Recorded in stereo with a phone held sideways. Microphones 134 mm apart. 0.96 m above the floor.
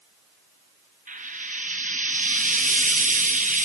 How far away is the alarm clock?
No alarm clock in this recording.